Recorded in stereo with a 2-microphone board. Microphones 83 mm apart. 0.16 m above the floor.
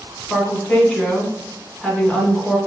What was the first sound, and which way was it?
A woman speaking, 10° left (ahead or behind).